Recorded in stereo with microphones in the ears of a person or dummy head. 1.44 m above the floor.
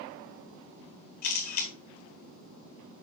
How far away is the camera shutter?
About 1.7 m.